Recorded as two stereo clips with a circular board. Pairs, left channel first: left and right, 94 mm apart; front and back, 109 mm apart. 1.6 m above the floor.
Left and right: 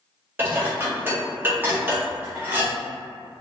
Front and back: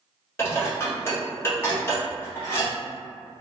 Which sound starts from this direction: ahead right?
Dishes clattering, at 0.4 s.